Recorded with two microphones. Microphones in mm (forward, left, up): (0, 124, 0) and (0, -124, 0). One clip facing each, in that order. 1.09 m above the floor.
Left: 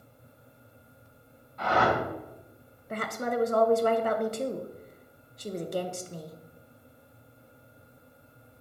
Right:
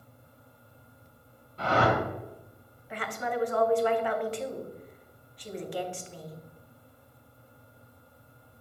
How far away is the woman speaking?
About 0.7 m.